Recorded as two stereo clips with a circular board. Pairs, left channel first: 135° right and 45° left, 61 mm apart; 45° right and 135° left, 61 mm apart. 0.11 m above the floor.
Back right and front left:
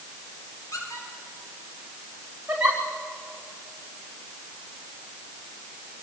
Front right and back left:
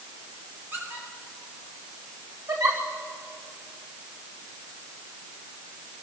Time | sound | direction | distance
0.7 | a squeak | 165° right | 8 m
2.5 | a giggle | 115° left | 5.5 m